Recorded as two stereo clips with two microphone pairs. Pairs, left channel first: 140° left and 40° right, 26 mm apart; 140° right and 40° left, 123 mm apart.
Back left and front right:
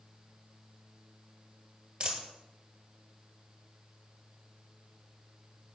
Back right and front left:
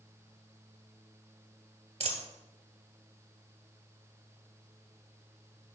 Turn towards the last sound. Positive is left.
turn(degrees=10)